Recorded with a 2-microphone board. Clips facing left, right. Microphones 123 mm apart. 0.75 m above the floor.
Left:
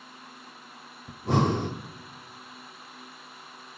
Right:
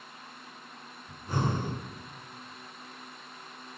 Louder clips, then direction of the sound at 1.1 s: Left 7 dB; 80° left.